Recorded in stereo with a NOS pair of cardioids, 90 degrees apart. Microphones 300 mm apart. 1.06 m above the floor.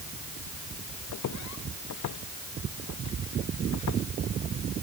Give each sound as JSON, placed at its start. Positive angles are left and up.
{"t": 1.1, "sound": "footsteps", "azimuth_deg": 65}